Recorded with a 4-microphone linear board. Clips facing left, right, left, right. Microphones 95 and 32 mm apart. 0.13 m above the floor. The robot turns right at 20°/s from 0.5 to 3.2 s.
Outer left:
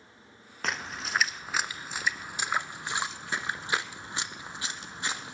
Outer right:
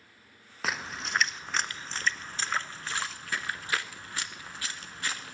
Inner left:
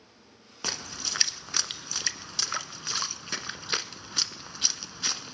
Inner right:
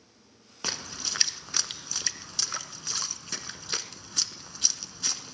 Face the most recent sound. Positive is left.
turn(degrees=20)  # may be behind; listen again after turning